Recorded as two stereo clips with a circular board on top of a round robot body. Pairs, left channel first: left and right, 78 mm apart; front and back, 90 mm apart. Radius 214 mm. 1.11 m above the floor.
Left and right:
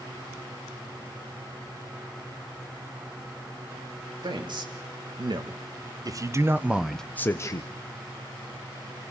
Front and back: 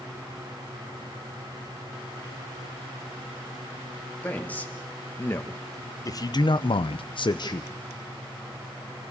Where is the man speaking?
75° right, 3 m; by 7.7 s 50° left, 1.2 m.